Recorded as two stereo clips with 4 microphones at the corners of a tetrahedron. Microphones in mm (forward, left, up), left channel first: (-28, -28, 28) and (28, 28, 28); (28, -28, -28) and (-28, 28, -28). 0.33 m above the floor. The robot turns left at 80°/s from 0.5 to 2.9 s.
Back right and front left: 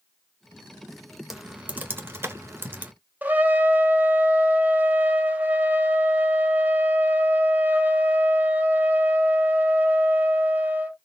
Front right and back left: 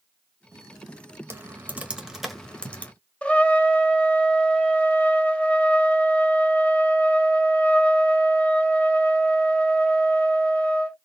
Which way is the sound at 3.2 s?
10° left.